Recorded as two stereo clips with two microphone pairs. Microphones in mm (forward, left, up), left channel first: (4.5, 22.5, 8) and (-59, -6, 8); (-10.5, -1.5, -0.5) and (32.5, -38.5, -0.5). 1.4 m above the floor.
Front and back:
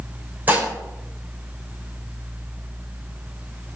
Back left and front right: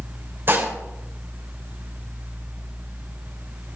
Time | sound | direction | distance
0.5 | dishes clattering | 95° right | 3.5 m